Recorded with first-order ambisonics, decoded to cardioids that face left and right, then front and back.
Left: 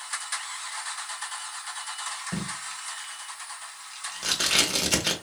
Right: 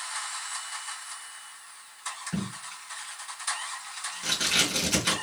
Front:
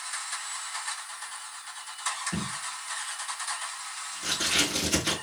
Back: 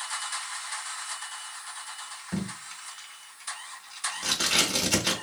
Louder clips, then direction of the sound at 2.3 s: Left 3 dB, front 3 dB; 110° left.